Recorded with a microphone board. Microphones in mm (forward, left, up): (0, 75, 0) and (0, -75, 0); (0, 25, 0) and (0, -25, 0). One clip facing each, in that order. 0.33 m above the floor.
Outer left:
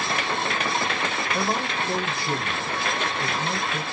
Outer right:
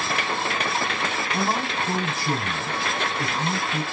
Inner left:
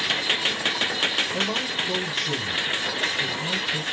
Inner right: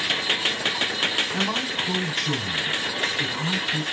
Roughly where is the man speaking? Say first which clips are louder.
Outer right 1 dB, inner right 1 dB; right.